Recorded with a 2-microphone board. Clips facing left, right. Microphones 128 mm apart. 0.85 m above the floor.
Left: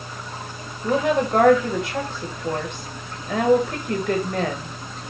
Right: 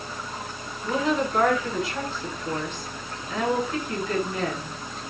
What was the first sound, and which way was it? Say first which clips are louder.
A woman speaking: left 4 dB; 65° left (ahead or behind).